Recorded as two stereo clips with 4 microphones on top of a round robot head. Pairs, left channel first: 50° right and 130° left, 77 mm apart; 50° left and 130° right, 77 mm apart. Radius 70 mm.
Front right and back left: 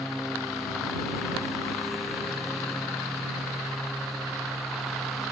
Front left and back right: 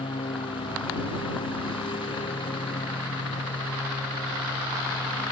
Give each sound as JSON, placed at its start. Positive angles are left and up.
{"t": 0.0, "sound": "a lawn mower", "azimuth_deg": 40}